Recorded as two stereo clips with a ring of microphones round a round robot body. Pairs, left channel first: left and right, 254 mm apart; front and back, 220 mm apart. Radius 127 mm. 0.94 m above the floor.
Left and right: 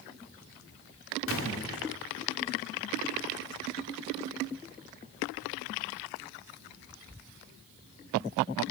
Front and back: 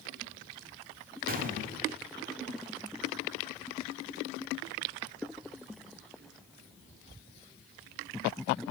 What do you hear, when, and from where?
1.3 s a gunshot: 130° left, 2 m